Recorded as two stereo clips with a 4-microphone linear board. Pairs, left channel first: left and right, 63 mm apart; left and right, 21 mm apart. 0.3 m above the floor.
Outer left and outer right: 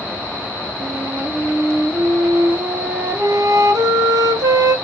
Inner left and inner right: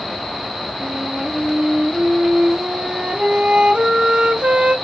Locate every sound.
0.8 s a flute: 75° right (ahead or behind), 1.2 m